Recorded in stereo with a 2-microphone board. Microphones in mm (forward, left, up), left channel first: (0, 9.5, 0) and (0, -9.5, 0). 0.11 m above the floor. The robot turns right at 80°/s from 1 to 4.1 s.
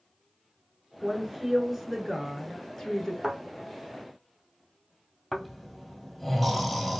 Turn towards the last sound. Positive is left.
turn(degrees=0)  # may be behind; listen again after turning